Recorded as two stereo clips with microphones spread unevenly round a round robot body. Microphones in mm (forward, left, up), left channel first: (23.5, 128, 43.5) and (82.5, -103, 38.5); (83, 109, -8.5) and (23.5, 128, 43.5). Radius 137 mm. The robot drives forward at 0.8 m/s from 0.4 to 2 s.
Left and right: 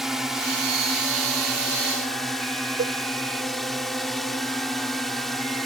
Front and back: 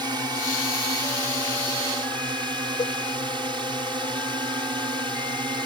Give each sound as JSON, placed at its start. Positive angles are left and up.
{"t": 0.0, "sound": "a drone", "azimuth_deg": -160}
{"t": 2.8, "sound": "a cowbell", "azimuth_deg": -25}